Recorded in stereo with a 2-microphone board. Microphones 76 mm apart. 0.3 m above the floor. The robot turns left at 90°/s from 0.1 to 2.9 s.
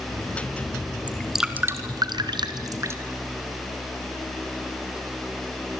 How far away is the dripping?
About 1.9 m.